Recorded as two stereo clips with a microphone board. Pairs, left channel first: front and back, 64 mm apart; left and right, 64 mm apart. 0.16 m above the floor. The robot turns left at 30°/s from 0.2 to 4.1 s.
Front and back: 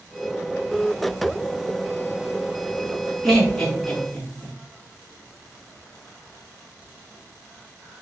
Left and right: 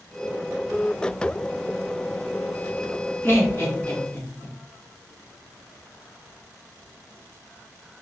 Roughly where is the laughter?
Left.